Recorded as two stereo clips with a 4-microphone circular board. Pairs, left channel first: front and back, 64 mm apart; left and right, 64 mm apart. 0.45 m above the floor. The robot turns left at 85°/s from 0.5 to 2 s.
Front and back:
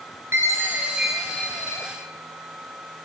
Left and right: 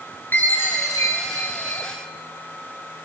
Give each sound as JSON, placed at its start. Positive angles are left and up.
{"t": 0.3, "sound": "a chime", "azimuth_deg": 140, "distance_m": 3.0}